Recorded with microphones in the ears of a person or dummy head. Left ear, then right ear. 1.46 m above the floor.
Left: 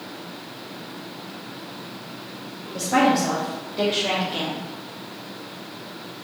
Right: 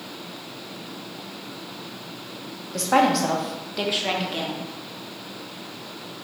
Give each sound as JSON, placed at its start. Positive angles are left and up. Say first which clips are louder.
{"t": 2.7, "sound": "a woman speaking", "louder": "even", "side_deg": -65, "distance_m": 0.8}